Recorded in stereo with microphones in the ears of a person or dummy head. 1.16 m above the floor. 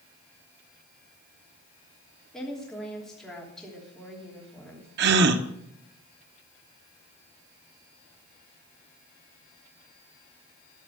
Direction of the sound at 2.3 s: 5° left (ahead or behind).